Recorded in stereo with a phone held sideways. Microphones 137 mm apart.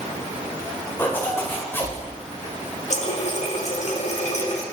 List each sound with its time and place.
1.0 s a zipper: 15° left (ahead or behind), 2 m
2.9 s a running tap: 55° left (ahead or behind), 1.5 m